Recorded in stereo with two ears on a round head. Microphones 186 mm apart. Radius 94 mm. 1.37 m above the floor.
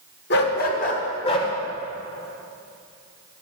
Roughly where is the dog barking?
Left.